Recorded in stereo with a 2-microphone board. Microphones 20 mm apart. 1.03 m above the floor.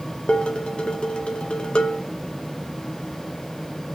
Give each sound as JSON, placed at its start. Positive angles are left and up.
{"t": 0.3, "sound": "dishes clattering", "side_deg": 60, "distance_m": 1.3}